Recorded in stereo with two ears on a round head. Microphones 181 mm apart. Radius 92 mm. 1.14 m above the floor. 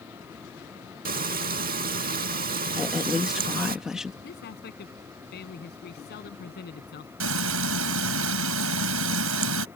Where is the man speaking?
55° left (ahead or behind).